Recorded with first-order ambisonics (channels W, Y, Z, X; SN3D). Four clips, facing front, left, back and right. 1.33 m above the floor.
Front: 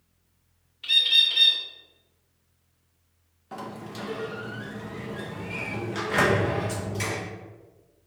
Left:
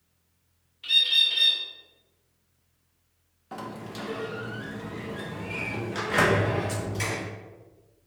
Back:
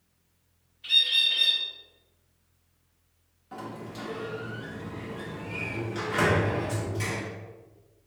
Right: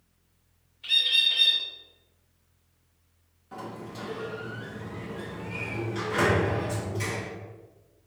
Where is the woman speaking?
No woman speaking in this recording.